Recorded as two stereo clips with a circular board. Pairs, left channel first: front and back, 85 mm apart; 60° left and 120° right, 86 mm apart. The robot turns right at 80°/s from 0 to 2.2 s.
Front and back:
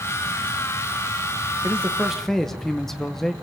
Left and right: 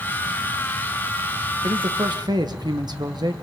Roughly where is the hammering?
No hammering in this recording.